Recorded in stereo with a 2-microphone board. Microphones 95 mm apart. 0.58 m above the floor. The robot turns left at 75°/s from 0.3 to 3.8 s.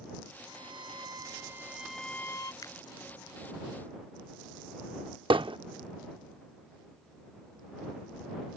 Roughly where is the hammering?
Right.